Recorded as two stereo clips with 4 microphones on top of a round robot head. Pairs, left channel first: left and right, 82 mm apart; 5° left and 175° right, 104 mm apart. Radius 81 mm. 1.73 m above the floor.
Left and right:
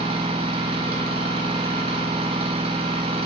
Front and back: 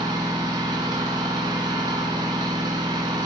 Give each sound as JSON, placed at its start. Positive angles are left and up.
{"t": 0.0, "sound": "an engine running", "azimuth_deg": -115, "distance_m": 1.6}